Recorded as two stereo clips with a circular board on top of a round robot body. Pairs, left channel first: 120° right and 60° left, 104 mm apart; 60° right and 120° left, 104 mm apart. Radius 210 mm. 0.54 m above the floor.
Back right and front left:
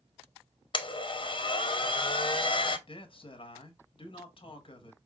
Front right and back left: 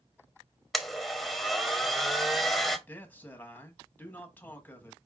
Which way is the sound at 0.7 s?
150° right.